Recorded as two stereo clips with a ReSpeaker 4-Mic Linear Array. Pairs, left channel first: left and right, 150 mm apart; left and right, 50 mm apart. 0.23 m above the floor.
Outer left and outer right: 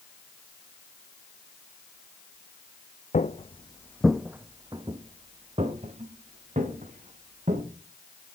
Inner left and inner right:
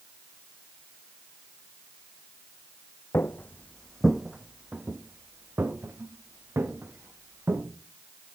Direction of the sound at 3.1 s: 55° left (ahead or behind).